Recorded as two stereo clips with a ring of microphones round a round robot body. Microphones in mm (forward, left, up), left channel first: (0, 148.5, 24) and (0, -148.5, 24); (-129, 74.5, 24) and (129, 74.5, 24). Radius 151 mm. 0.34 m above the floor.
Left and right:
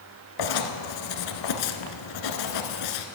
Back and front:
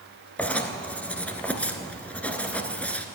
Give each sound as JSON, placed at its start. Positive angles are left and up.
{"t": 0.4, "sound": "writing", "azimuth_deg": 95, "distance_m": 1.2}